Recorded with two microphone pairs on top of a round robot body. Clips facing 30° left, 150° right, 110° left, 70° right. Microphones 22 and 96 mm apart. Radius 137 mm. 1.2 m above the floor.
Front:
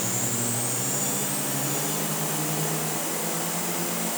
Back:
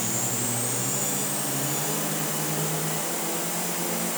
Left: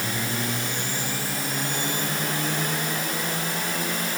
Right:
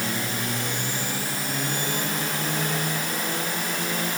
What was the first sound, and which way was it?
Only background noise.